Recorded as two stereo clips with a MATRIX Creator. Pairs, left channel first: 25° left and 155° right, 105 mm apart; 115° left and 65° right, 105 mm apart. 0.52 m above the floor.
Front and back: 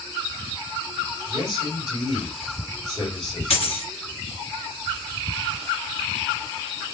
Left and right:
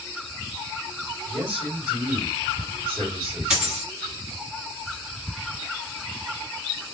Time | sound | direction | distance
1.3 | a man speaking | 15° left | 2.0 m
3.5 | a dropped coin | 15° left | 1.3 m